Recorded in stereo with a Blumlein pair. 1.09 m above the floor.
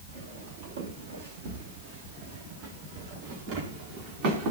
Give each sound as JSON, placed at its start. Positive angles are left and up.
{"t": 0.1, "sound": "footsteps", "azimuth_deg": -55, "distance_m": 8.5}